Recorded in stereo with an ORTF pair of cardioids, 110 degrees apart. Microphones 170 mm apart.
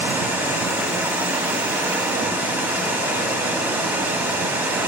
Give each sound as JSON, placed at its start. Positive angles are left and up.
{"t": 0.0, "sound": "running water", "azimuth_deg": -15, "distance_m": 2.0}